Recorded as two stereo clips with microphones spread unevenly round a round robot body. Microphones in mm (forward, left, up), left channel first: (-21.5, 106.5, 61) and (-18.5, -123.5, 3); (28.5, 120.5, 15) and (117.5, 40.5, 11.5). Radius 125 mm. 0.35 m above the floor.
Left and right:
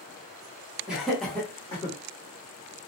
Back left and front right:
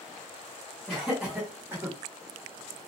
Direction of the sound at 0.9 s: 135° right.